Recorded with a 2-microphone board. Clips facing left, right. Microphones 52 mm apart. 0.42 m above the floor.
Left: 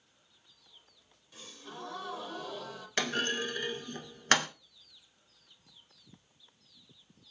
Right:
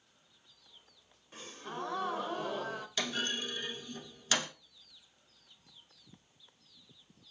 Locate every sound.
1.3 s a gasp: 35° right (ahead or behind), 0.5 m
3.0 s a clunk: 50° left (ahead or behind), 0.8 m